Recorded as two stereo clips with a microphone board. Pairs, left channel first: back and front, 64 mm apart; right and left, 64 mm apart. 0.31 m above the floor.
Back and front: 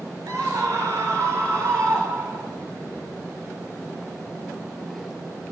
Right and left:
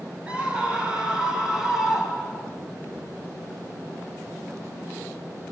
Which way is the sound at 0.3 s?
20° left.